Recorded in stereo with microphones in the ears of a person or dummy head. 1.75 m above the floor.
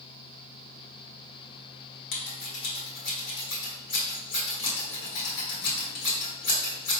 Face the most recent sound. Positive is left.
turn(degrees=60)  # may be behind; listen again after turning